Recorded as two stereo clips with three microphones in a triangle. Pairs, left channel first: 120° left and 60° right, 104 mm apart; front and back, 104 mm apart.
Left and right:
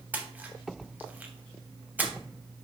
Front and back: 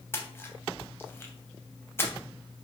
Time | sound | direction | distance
0.1 | a splash | 15° right | 0.6 m